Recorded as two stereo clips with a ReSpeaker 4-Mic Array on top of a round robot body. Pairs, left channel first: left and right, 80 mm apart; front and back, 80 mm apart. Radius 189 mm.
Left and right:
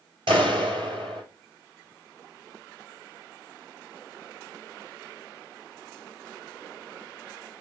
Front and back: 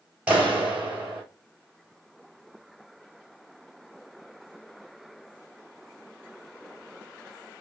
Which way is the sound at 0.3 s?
105° right.